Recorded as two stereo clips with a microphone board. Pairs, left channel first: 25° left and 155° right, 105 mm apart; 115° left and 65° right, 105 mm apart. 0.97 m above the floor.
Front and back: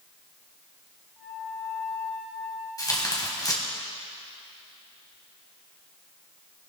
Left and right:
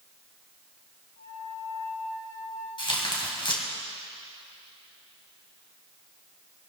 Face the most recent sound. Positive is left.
turn(degrees=75)